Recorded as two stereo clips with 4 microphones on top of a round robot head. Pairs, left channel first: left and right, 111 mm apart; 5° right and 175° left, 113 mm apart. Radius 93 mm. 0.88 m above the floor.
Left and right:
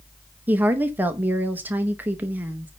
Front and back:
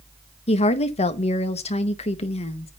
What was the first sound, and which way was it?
A woman speaking, 15° right.